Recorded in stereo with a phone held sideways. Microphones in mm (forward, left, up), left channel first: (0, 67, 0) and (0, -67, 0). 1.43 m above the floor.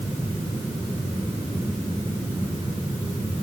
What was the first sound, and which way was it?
Only background noise.